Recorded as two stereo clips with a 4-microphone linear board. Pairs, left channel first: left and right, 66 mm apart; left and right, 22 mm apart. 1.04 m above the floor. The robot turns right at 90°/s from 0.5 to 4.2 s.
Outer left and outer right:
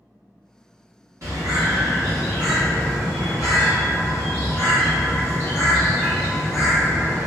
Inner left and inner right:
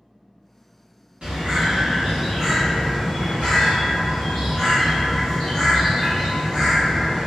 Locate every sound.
1.2 s a bird: 125° right, 1.3 m; by 7.3 s 145° left, 1.3 m